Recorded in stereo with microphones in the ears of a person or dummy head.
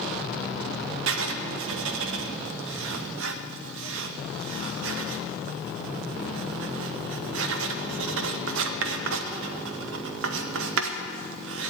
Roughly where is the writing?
Right.